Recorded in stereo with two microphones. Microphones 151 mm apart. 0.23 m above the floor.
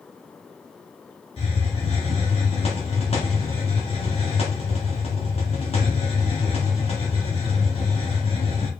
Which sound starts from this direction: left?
A hiss, at 1.4 s.